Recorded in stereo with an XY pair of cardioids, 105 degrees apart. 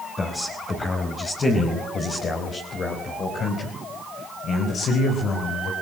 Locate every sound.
0.2 s a man speaking: 30° left, 5.5 m; by 5.7 s 65° left, 5 m